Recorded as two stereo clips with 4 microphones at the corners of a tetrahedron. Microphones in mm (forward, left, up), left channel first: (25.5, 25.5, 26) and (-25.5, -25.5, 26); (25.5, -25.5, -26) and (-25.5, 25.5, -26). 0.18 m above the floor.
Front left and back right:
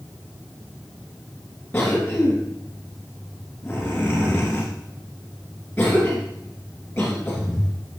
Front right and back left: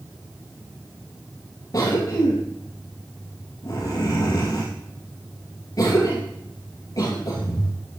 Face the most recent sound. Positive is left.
turn(degrees=-30)